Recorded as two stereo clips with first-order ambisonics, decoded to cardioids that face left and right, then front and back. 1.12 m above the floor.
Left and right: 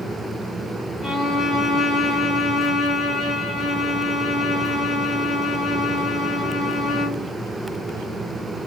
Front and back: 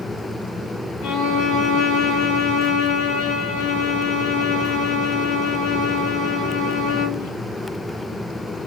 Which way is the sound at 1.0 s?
5° left.